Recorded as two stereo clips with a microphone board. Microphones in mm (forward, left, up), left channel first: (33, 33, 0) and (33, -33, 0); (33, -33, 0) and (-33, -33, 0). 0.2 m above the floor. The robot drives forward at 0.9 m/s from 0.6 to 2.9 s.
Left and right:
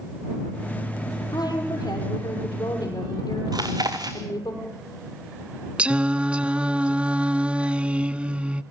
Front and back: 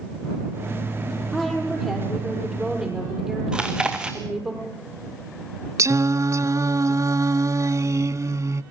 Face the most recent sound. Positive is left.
turn(degrees=-160)